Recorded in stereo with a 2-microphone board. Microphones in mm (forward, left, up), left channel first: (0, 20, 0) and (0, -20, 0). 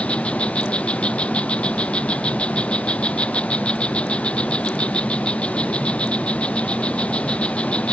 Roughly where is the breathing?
I don't hear breathing.